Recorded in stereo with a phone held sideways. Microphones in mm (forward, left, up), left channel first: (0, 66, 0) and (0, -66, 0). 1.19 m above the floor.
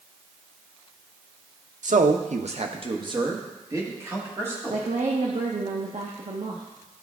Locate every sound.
1.8 s a man speaking: 75° right (ahead or behind), 0.7 m; by 4.9 s 15° right (ahead or behind), 2.5 m
4.7 s a woman speaking: 65° right (ahead or behind), 0.9 m